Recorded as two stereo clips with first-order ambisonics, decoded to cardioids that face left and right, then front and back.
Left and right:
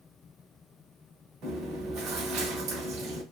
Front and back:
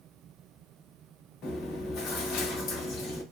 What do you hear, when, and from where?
1.4 s chewing: 45° right, 1.0 m